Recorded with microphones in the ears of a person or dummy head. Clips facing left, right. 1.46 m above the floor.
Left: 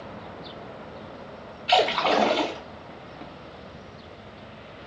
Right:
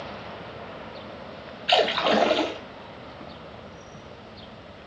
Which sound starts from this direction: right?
A splash, at 1.7 s.